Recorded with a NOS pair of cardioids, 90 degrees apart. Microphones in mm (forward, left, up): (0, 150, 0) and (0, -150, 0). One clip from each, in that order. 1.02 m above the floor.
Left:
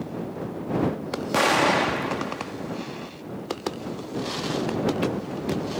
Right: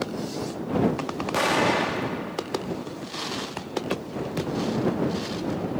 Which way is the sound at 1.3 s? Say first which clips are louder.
Left 2 dB; 15° left.